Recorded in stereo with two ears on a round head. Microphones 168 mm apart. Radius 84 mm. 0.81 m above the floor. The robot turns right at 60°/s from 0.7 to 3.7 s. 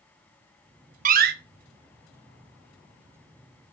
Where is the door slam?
45° right (ahead or behind), 1.0 m; by 1.3 s 55° right (ahead or behind), 1.0 m.